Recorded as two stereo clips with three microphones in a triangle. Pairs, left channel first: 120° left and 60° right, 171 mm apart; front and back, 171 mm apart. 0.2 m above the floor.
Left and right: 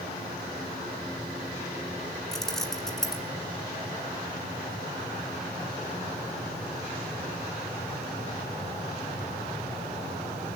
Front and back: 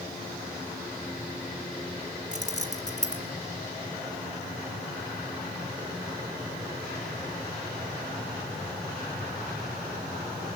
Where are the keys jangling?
30° left, 1.9 m.